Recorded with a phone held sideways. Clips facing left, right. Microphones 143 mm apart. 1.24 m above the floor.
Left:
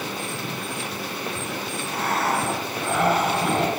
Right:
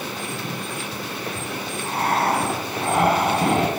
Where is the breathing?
50° right (ahead or behind), 6 m.